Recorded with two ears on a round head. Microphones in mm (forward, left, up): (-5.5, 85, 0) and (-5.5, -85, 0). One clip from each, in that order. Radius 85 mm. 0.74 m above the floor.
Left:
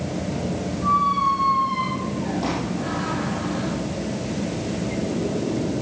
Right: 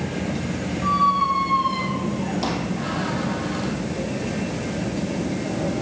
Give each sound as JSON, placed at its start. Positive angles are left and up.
{"t": 0.8, "sound": "a squeak", "side_deg": -60, "distance_m": 3.5}